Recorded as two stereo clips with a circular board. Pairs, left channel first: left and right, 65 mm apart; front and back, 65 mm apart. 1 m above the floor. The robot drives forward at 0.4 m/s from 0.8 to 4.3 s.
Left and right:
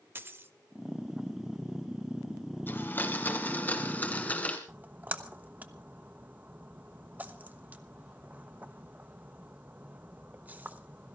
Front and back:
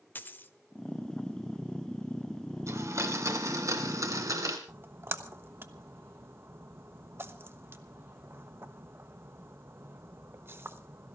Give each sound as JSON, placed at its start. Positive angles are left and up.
{"t": 0.1, "sound": "a dropped coin", "azimuth_deg": -50, "distance_m": 0.9}
{"t": 2.7, "sound": "a blender", "azimuth_deg": 145, "distance_m": 1.8}
{"t": 4.7, "sound": "a splash", "azimuth_deg": -145, "distance_m": 1.0}